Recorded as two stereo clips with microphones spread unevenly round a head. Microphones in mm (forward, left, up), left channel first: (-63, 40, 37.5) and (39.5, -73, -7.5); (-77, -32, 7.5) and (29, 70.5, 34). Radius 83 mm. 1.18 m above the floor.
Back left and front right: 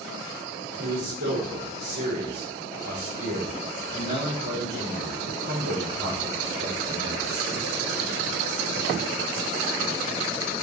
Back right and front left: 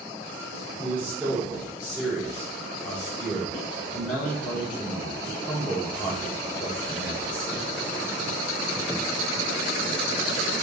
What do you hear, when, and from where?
0.8 s a man speaking: 40° right, 4.5 m